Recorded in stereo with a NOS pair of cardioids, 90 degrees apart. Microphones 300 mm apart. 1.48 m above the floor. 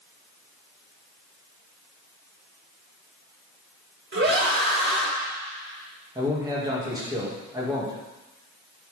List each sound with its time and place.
4.1 s a scream: 40° right, 1.6 m
6.2 s a man speaking: 15° right, 2.5 m